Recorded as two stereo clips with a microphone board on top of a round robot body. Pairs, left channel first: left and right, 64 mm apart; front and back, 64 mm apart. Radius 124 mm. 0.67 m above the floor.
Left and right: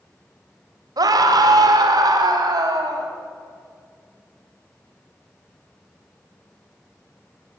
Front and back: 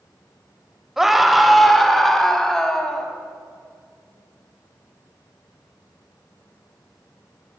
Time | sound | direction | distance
1.0 | a scream | 95° right | 3.5 m